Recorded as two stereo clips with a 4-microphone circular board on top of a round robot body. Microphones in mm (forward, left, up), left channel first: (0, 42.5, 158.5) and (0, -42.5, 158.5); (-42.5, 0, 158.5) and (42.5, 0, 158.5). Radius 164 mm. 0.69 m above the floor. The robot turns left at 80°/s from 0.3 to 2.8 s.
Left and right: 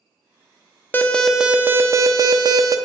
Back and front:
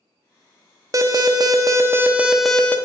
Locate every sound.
0.9 s an alarm: 30° left, 0.8 m; by 2.8 s 115° right, 0.8 m